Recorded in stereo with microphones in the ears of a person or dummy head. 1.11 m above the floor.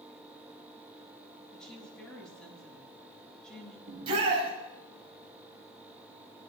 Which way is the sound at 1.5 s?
5° left (ahead or behind).